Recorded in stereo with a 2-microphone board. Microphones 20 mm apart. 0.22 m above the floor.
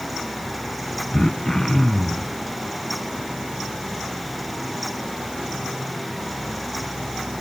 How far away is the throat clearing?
About 0.8 m.